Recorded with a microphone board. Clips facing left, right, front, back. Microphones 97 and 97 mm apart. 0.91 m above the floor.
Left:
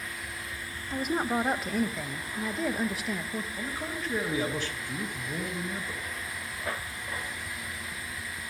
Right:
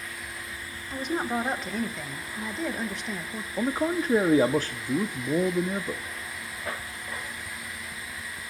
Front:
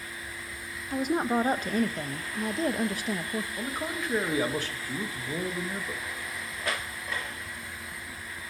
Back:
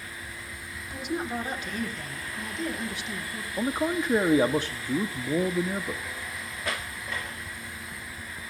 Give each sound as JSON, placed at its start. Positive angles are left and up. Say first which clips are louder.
{"t": 0.9, "sound": "a woman speaking", "louder": "even, front 5 dB", "azimuth_deg": 5, "distance_m": 0.8}
{"t": 3.6, "sound": "a man speaking", "louder": "right 9 dB, back 6 dB", "azimuth_deg": -120, "distance_m": 0.5}